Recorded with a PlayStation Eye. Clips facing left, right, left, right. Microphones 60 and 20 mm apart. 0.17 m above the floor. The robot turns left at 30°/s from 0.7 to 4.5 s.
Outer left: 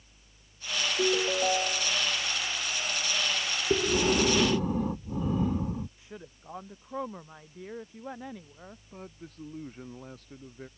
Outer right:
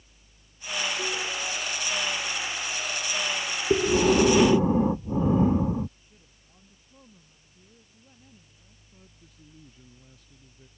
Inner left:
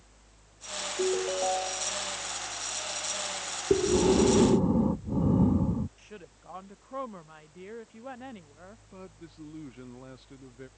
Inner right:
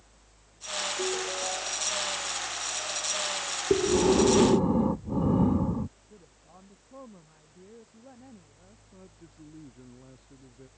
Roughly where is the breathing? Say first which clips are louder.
Outer right 5 dB, even; centre.